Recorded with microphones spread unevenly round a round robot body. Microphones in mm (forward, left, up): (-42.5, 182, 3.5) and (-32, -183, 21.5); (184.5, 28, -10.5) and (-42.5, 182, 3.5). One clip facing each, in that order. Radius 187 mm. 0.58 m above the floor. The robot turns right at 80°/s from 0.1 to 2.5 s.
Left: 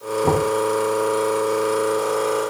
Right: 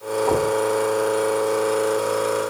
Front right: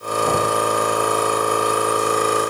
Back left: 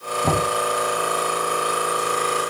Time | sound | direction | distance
0.2 | knocking | 135° left | 8 m